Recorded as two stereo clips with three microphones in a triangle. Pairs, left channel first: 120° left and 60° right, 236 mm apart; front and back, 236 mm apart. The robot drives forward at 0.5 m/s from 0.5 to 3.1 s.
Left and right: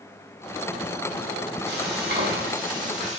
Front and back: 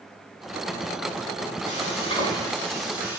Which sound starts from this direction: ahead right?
Frying, at 1.7 s.